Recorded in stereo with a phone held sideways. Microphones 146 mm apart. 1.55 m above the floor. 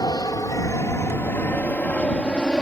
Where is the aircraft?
25° left (ahead or behind); by 2.6 s 5° left (ahead or behind).